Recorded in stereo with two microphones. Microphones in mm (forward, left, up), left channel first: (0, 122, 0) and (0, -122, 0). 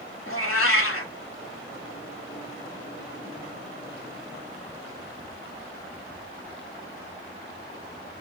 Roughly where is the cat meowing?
Left.